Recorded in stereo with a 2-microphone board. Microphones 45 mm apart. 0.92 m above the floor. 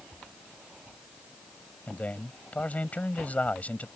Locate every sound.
1.9 s a man speaking: 35° left (ahead or behind)